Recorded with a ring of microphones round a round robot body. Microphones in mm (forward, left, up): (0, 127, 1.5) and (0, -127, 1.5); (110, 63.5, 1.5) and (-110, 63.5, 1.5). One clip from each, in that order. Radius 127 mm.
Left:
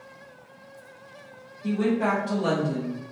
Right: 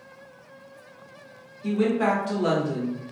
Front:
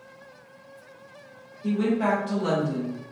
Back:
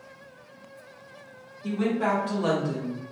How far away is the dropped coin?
I don't hear a dropped coin.